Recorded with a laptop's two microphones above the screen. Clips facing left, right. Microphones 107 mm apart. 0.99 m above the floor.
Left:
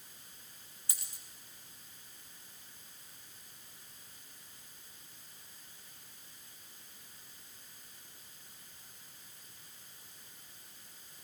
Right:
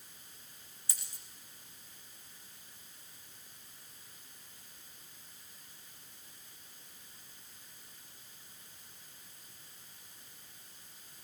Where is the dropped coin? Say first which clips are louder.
Left 1 dB; 50° left (ahead or behind), 4 m.